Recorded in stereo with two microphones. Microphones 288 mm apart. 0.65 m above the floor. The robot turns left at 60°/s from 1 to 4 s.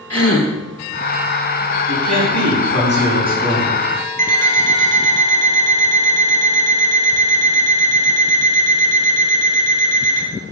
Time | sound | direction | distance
0.1 | a gasp | 55° left (ahead or behind) | 2 m
1.9 | a man speaking | 80° right | 5.5 m
4.2 | an alarm clock | 25° right (ahead or behind) | 2.5 m